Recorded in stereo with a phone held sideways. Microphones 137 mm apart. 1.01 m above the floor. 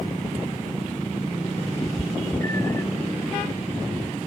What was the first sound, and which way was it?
A cat meowing, 25° left (ahead or behind).